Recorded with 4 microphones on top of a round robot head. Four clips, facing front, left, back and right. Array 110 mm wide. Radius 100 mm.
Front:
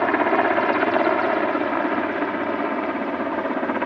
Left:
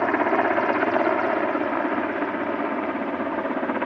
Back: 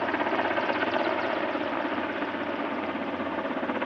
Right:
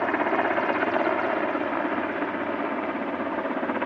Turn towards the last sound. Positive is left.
turn(degrees=15)